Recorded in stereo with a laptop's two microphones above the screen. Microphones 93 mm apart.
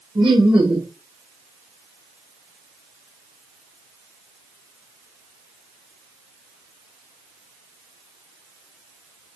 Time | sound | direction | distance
0.1 | laughter | 60° right (ahead or behind) | 1.5 m